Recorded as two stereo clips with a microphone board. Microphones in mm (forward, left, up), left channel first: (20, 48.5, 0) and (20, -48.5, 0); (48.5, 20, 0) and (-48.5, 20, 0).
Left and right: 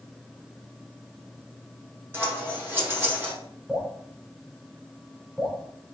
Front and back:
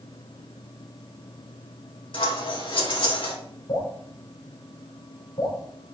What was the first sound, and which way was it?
Scissors, 25° right.